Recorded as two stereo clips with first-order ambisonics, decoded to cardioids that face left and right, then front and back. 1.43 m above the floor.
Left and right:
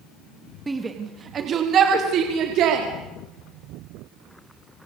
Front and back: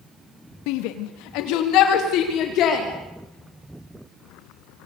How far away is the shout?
About 2.5 m.